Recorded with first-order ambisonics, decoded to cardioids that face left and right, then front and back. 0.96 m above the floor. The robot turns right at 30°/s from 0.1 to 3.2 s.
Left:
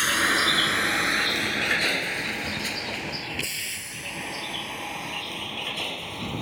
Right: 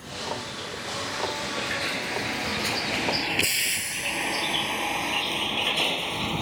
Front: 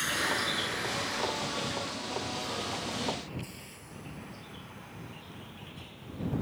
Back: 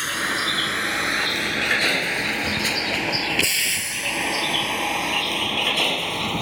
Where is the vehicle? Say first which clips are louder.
Left 12 dB, back 7 dB; 110° left; by 6.4 s 160° right.